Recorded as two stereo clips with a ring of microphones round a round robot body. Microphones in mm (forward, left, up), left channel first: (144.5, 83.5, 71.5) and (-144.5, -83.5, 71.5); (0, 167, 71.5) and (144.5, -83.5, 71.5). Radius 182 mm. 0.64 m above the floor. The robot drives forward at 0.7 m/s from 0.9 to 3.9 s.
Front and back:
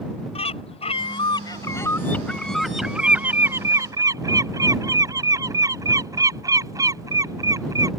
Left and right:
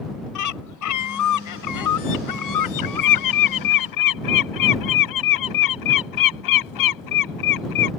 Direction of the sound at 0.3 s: 105° left.